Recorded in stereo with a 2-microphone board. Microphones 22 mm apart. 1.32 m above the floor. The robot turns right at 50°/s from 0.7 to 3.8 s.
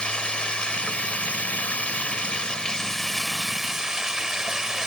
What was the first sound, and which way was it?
Running water, 50° left.